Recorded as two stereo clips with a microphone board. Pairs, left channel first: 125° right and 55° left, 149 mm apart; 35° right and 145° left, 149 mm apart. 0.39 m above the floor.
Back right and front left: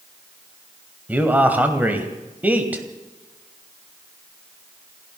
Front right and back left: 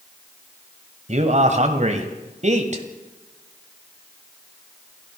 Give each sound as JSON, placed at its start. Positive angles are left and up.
{"t": 1.1, "sound": "a man speaking", "azimuth_deg": 135, "distance_m": 2.0}